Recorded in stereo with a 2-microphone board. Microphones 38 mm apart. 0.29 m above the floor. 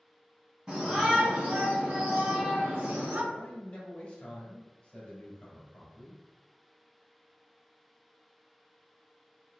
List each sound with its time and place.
0.7 s a shout: 20° right (ahead or behind), 2.0 m; by 3.2 s 55° right (ahead or behind), 1.7 m
3.3 s a man speaking: 30° left (ahead or behind), 1.8 m